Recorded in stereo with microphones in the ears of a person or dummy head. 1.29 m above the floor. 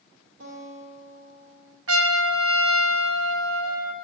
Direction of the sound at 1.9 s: 75° right (ahead or behind).